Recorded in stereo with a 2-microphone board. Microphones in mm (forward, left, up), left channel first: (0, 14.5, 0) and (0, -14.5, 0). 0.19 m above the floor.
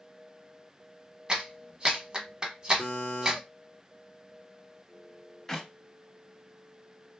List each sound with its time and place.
1.3 s a clap: 30° right (ahead or behind), 0.9 m
2.8 s a buzzer: 55° left (ahead or behind), 0.8 m
5.5 s a clap: 15° left (ahead or behind), 0.8 m